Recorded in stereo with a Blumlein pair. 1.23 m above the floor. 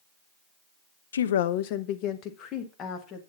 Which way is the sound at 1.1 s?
70° left.